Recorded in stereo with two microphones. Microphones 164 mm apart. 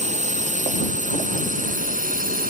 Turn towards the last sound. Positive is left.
turn(degrees=-60)  # may be behind; listen again after turning